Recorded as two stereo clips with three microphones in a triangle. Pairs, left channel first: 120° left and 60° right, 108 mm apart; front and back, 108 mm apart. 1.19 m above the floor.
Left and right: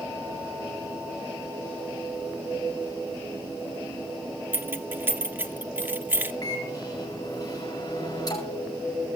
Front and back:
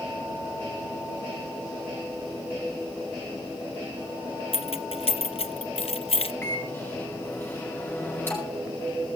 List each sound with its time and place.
4.5 s keys jangling: 10° left, 0.9 m
6.4 s a microwave: 70° left, 9.5 m